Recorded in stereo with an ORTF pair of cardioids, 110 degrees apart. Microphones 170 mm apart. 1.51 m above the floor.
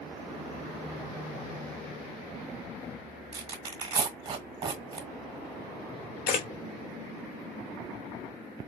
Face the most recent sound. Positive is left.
turn(degrees=60)